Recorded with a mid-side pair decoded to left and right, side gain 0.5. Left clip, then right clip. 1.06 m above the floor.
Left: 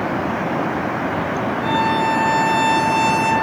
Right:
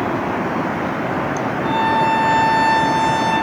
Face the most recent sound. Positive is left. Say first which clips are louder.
# right 2 dB
turn(degrees=70)